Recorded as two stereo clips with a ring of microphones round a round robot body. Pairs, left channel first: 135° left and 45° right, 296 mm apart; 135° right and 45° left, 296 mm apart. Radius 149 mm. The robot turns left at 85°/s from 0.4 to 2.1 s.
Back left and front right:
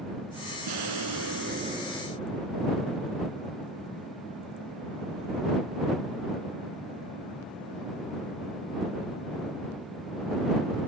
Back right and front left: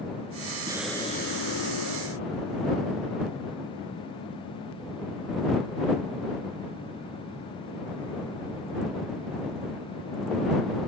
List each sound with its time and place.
0.7 s an explosion: 30° right; by 2.8 s 150° right